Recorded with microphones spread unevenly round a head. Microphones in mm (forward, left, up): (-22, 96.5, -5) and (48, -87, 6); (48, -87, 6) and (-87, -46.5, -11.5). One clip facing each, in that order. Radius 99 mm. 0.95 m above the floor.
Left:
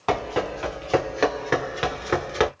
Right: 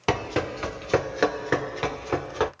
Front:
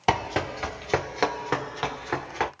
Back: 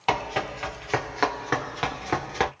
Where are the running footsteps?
35° right, 1.5 m; by 2.5 s 120° left, 1.0 m.